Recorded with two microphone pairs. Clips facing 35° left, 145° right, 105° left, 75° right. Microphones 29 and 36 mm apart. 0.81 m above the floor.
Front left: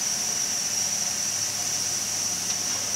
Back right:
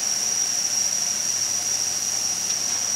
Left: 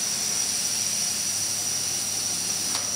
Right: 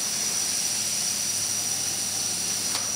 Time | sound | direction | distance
0.0 | an insect | 110° right | 0.7 m